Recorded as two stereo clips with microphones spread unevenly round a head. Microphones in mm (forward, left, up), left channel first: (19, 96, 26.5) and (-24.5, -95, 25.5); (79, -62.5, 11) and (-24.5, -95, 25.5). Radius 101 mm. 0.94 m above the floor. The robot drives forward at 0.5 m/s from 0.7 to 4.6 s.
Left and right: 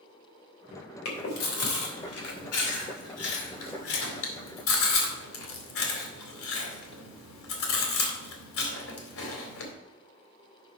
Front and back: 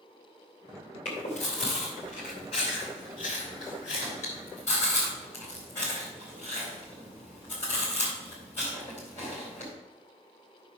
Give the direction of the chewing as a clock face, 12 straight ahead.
10 o'clock.